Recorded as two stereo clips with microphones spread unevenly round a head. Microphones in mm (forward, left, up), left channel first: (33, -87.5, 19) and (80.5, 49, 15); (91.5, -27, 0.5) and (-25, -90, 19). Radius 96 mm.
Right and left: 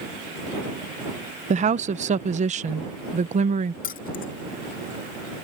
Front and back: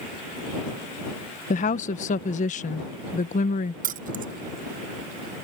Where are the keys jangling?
155° right.